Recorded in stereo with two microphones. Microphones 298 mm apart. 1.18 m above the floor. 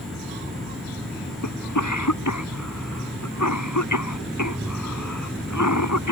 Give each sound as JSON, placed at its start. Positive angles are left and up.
{"t": 1.4, "sound": "a cough", "side_deg": 80}